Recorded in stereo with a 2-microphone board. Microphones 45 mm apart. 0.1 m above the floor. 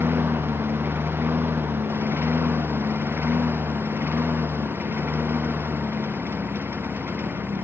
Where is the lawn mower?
55° right (ahead or behind); by 7.7 s 50° right (ahead or behind).